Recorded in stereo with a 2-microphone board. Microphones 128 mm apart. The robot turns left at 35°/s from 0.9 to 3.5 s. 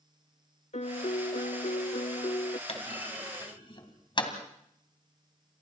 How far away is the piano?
About 0.5 m.